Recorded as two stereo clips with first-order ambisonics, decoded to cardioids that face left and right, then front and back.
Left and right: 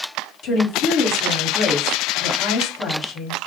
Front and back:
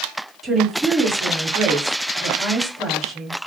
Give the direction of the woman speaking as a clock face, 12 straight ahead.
8 o'clock.